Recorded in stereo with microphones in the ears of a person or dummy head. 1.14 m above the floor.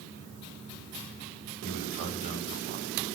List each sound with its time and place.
1.6 s a man speaking: 30° right (ahead or behind), 7 m